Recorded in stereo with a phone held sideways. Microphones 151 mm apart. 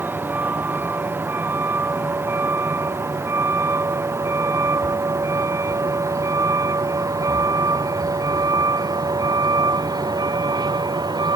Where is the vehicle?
15° right (ahead or behind); by 11.4 s 25° right (ahead or behind).